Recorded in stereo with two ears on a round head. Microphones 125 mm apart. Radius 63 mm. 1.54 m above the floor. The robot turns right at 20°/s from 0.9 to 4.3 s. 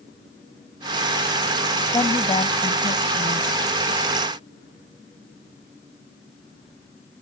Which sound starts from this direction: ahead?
A woman speaking, at 1.9 s.